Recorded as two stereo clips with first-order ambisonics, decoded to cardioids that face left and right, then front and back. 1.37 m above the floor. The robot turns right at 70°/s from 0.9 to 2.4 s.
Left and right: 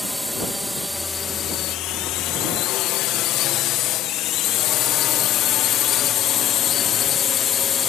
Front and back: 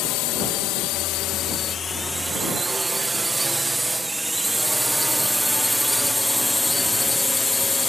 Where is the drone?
Straight ahead; by 7.9 s 70° left.